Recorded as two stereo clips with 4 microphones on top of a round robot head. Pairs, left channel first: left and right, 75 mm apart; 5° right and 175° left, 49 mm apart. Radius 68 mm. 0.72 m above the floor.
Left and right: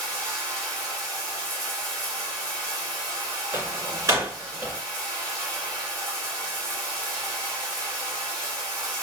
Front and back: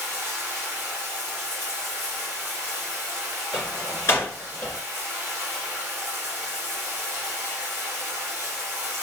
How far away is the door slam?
About 1.8 m.